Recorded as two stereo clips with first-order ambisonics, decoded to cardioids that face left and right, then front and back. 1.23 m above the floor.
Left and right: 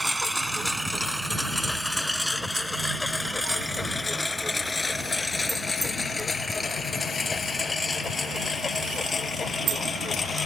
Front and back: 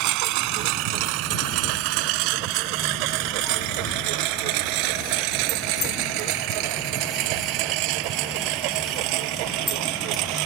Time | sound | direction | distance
0.0 | a lawn mower | 175° right | ?